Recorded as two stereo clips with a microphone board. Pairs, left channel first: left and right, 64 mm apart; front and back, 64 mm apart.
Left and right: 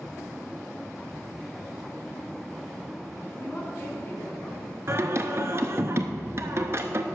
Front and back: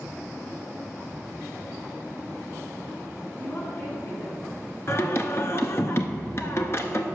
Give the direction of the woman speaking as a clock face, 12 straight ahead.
11 o'clock.